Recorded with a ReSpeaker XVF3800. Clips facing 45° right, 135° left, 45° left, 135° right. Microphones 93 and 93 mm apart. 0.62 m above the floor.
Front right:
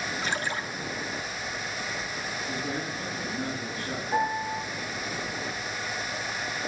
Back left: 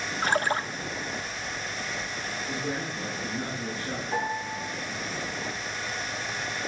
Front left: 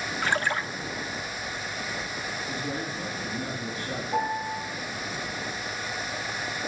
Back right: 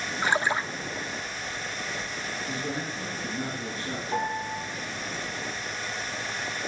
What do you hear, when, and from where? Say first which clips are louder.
0.2 s a splash: back left 8 dB, back right 2 dB; 155° left, 0.5 m
2.5 s a man speaking: back left 1 dB, back right 1 dB; 140° right, 7.5 m
4.1 s a piano: front right 4 dB, front left 2 dB; 140° right, 4 m